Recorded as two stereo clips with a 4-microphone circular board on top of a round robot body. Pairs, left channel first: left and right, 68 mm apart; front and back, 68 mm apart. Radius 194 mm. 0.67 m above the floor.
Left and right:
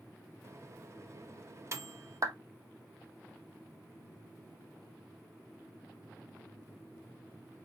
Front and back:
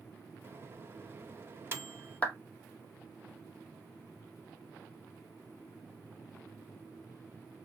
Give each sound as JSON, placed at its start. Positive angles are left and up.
{"t": 0.4, "sound": "a microwave", "azimuth_deg": -130, "distance_m": 0.9}
{"t": 2.2, "sound": "a clap", "azimuth_deg": -65, "distance_m": 1.2}